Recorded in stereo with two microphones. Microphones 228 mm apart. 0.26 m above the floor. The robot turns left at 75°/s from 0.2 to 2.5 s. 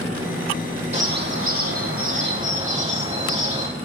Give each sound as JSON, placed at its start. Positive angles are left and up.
{"t": 0.9, "sound": "a bird", "azimuth_deg": -30, "distance_m": 4.0}